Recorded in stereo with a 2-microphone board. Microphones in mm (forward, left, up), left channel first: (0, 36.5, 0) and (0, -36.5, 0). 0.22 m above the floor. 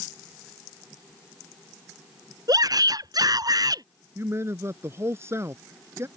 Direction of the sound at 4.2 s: 35° right (ahead or behind).